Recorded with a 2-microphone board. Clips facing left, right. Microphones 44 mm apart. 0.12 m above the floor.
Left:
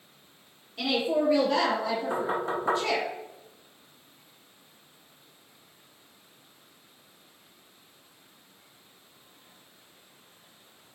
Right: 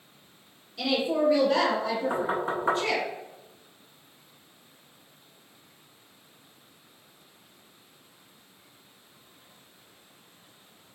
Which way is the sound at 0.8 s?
25° left (ahead or behind).